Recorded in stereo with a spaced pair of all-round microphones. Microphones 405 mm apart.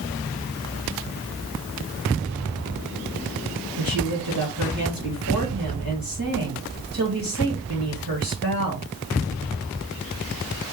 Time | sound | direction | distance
3.8 | a woman speaking | 65° right (ahead or behind) | 1.8 m